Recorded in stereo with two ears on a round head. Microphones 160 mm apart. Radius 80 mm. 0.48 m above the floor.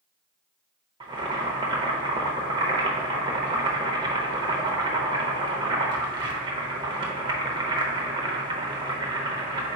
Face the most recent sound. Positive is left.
turn(degrees=-25)  # may be behind; listen again after turning